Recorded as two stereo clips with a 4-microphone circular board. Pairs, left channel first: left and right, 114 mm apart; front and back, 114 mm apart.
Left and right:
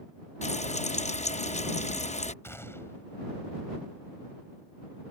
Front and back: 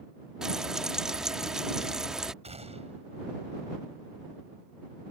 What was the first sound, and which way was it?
Frying, 95° left.